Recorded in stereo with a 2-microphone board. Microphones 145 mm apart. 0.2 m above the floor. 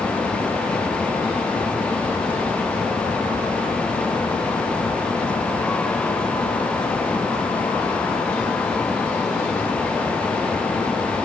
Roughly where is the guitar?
No guitar in this recording.